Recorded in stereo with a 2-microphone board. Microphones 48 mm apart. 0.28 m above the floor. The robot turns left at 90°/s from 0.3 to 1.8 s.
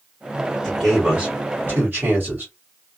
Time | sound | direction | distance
0.6 | a man speaking | 15° left | 1.6 m